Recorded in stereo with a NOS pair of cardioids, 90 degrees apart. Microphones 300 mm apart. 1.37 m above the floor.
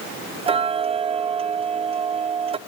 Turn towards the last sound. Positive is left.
turn(degrees=-20)